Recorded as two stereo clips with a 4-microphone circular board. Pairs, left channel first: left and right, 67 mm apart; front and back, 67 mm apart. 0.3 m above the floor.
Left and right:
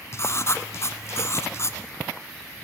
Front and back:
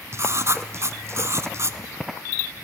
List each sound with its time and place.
0.1 s writing: 135° left, 1.5 m